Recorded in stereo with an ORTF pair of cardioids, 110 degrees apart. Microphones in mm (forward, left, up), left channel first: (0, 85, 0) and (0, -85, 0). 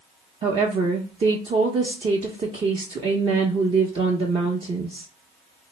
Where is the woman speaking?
35° right, 0.6 m.